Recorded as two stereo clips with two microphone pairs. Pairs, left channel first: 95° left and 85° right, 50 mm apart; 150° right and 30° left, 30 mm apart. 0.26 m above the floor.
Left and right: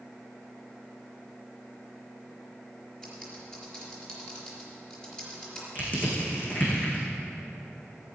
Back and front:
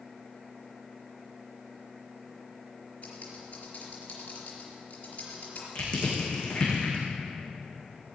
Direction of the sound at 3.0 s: 165° left.